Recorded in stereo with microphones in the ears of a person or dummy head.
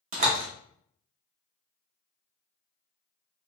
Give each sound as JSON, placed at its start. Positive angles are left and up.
{"t": 0.1, "sound": "a door slam", "side_deg": -40, "distance_m": 0.7}